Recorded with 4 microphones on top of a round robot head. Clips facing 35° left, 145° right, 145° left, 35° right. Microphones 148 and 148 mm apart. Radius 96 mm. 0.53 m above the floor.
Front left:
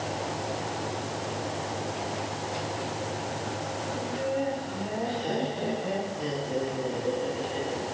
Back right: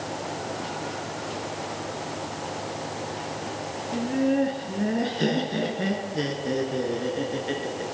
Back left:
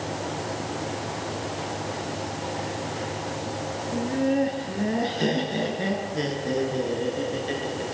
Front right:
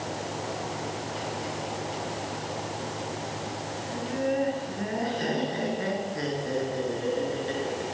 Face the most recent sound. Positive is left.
turn(degrees=-140)